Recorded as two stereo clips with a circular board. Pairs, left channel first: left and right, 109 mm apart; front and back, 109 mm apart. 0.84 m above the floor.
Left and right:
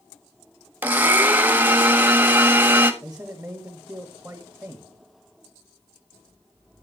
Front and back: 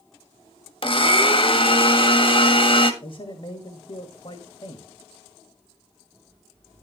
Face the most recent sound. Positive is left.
turn(degrees=-15)